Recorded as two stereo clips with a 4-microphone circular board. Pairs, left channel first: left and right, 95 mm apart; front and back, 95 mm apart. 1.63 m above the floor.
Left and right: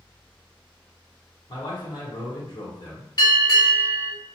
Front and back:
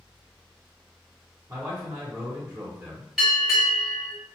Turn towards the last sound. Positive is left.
turn(degrees=95)